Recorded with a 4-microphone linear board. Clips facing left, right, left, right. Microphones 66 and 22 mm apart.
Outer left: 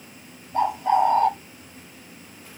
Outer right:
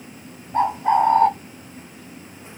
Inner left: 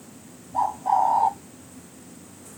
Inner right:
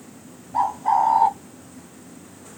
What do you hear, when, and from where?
0.5 s a bird: 35° right (ahead or behind), 1.2 m